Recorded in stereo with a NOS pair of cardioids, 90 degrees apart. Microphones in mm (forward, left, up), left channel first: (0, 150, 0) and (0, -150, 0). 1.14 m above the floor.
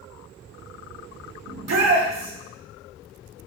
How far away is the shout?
About 3 m.